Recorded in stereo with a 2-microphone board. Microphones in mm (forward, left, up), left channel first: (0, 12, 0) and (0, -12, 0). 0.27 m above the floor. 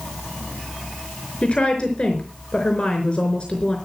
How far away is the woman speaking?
About 4.5 m.